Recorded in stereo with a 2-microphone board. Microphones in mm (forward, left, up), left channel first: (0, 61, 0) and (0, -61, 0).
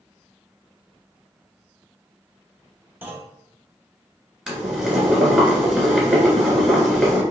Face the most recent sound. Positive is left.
turn(degrees=-5)  # may be behind; listen again after turning